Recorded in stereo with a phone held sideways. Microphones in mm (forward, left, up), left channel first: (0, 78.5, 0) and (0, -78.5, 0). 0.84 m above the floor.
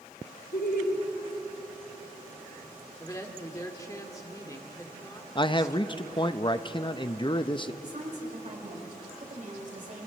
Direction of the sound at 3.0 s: 20° left (ahead or behind).